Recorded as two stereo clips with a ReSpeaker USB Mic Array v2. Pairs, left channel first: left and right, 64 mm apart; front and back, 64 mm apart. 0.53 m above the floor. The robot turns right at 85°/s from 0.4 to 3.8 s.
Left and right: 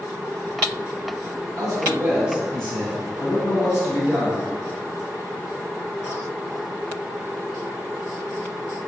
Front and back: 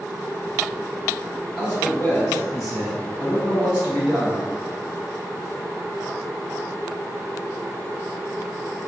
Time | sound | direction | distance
1.6 | a man speaking | 75° right | 1.9 m